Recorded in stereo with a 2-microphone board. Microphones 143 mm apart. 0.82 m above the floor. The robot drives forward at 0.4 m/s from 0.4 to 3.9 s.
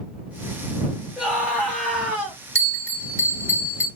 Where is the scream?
10° right (ahead or behind), 1.6 m.